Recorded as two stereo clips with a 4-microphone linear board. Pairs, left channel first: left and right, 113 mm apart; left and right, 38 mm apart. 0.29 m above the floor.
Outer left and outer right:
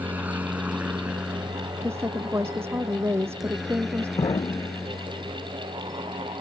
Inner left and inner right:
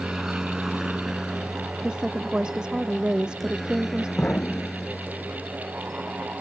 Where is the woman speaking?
20° right (ahead or behind).